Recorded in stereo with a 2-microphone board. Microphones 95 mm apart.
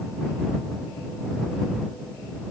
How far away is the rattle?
I don't hear a rattle.